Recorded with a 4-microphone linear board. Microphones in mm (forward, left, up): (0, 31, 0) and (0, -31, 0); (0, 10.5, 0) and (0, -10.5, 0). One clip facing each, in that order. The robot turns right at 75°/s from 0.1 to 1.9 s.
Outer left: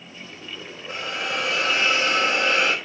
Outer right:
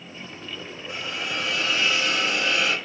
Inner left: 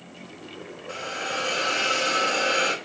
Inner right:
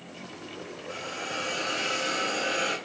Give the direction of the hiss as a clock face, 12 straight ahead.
10 o'clock.